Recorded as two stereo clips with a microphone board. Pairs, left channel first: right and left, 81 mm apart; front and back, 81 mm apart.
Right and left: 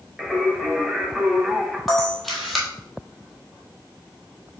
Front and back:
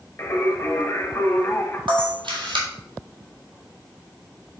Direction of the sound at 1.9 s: Straight behind.